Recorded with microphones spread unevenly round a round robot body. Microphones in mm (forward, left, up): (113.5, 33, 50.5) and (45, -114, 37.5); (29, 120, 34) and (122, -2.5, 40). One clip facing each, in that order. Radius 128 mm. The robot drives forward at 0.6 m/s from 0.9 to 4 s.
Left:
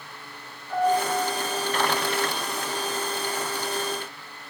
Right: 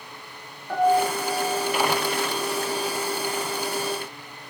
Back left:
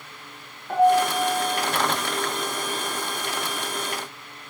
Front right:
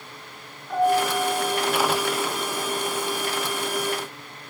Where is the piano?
165° right, 6 m.